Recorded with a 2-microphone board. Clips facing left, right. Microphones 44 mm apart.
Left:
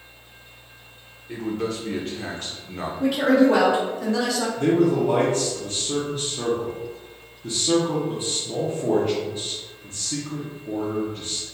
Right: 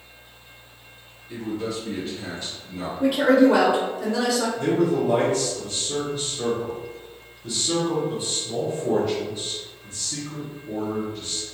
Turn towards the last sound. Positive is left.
turn(degrees=40)  # may be behind; listen again after turning